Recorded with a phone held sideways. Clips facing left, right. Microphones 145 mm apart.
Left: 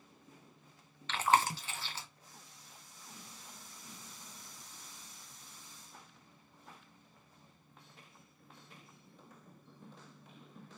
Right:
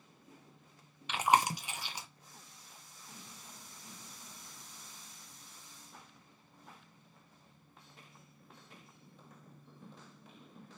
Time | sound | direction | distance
1.1 | chewing | 15° right (ahead or behind) | 0.5 m